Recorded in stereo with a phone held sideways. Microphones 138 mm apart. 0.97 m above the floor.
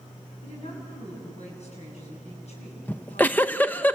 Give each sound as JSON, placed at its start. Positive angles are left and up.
{"t": 0.4, "sound": "a woman speaking", "side_deg": 55, "distance_m": 8.5}
{"t": 2.9, "sound": "a giggle", "side_deg": 15, "distance_m": 0.6}